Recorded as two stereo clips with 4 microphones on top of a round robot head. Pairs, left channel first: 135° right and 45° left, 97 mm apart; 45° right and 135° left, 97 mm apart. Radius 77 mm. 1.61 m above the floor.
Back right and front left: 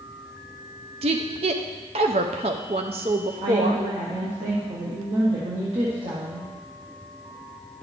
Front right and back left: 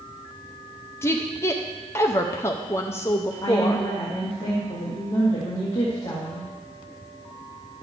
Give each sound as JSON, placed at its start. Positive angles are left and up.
{"t": 1.0, "sound": "a woman speaking", "azimuth_deg": 20, "distance_m": 0.5}
{"t": 3.4, "sound": "a woman speaking", "azimuth_deg": 10, "distance_m": 1.7}